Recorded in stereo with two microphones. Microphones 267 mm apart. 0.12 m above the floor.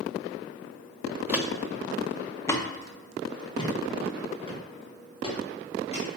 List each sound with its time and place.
1.3 s footsteps: 5° right (ahead or behind), 0.9 m; by 6.1 s 20° left (ahead or behind), 3.5 m